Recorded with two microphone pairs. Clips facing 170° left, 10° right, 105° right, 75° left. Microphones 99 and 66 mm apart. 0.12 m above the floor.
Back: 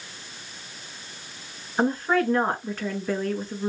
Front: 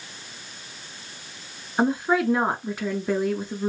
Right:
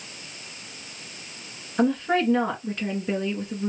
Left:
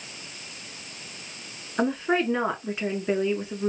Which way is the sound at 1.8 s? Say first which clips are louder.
Front 1 dB, right 2 dB; 40° left.